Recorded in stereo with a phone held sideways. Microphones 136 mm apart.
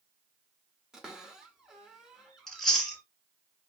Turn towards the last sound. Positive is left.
turn(degrees=5)  # may be behind; listen again after turning